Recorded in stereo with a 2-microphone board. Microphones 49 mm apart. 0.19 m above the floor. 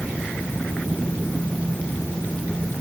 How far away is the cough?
No cough in this recording.